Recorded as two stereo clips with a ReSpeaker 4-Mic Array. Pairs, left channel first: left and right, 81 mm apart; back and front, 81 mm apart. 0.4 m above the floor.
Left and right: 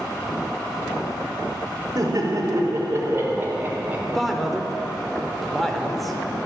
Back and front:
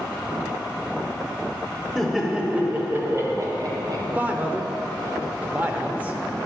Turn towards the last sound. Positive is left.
turn(degrees=0)